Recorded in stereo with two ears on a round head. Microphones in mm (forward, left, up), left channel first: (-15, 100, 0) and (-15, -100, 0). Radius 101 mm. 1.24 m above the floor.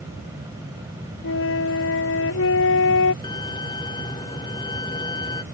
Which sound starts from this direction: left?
A flute, at 1.2 s.